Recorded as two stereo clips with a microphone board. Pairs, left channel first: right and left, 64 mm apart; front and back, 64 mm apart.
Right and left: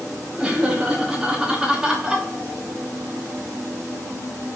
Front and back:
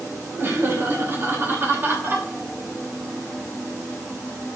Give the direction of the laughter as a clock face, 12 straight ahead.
7 o'clock.